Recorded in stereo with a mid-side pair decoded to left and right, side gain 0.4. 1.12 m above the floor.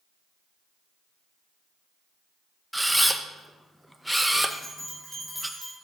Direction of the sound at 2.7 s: 5° right.